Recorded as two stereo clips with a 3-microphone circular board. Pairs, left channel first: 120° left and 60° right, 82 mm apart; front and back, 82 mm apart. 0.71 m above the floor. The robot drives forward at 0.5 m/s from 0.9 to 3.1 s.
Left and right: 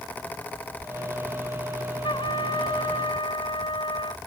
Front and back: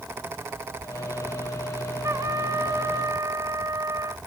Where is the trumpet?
125° left; by 4.2 s 130° left.